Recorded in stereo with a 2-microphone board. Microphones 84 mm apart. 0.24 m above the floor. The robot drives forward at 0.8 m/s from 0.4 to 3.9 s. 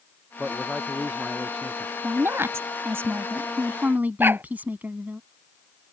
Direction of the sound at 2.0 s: 30° right (ahead or behind).